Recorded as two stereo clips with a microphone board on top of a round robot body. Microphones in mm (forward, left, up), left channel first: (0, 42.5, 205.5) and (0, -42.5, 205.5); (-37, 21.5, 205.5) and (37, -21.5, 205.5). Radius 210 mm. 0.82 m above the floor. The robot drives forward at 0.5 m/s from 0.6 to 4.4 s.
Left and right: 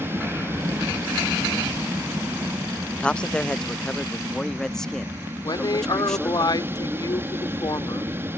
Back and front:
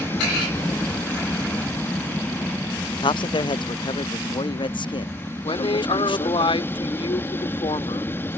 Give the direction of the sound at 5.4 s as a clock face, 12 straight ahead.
8 o'clock.